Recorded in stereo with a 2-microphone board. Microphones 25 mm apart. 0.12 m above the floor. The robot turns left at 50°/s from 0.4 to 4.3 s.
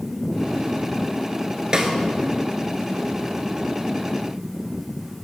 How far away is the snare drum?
About 0.9 m.